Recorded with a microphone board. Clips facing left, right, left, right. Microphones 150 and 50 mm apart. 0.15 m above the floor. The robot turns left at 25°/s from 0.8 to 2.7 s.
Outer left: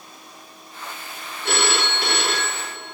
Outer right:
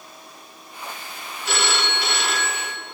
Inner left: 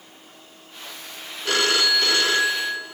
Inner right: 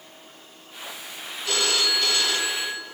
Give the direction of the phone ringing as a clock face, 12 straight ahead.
9 o'clock.